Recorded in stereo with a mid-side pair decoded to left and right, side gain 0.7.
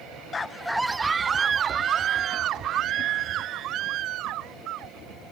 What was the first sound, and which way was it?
A scream, 25° left.